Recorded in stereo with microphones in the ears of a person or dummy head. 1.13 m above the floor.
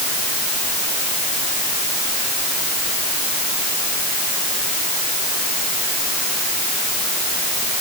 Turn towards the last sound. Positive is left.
No sound to turn to.